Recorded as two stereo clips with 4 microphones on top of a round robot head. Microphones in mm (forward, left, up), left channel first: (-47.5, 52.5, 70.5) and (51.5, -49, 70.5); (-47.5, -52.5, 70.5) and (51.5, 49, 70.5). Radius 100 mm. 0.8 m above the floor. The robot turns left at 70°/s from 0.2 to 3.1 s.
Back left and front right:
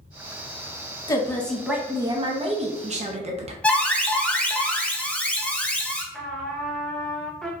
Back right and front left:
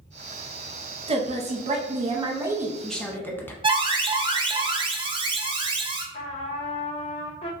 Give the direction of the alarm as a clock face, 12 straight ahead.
10 o'clock.